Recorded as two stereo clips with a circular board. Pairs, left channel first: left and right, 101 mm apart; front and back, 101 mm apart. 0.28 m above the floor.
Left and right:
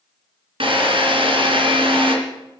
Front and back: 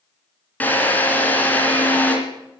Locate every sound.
0.6 s a drill: 70° right, 3 m